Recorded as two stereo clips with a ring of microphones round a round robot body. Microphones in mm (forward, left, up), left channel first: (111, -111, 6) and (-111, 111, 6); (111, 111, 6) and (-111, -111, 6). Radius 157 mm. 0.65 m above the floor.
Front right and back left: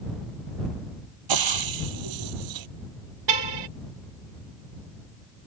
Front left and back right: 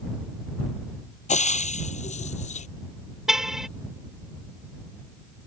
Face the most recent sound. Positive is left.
turn(degrees=135)